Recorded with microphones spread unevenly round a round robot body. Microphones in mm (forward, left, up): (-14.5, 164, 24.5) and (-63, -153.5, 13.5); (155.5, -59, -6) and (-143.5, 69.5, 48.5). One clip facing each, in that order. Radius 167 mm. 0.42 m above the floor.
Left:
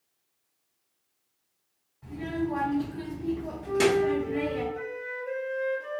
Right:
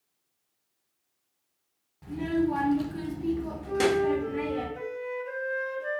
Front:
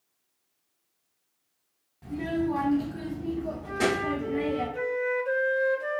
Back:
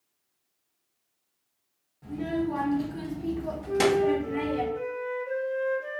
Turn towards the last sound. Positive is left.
turn(degrees=-30)